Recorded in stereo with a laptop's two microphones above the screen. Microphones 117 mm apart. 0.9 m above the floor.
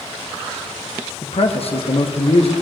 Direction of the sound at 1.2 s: 55° left (ahead or behind).